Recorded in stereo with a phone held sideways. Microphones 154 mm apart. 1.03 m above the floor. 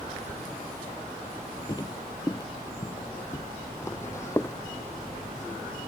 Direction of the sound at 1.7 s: 25° left (ahead or behind).